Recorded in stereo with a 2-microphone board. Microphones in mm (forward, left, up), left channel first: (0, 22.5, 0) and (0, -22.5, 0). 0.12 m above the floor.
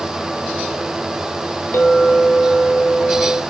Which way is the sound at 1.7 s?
65° left (ahead or behind).